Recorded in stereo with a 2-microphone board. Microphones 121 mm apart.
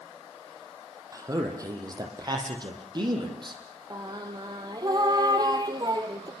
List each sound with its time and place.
1.1 s a man speaking: 25° right (ahead or behind), 5.5 m; by 3.6 s 40° right (ahead or behind), 7 m
3.9 s singing: 35° right (ahead or behind), 2 m